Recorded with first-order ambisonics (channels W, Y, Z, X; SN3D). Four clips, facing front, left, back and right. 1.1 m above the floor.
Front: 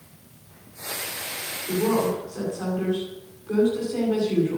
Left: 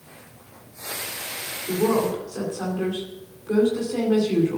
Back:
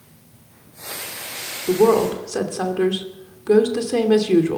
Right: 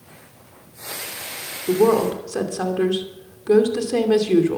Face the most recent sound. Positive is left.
turn(degrees=-145)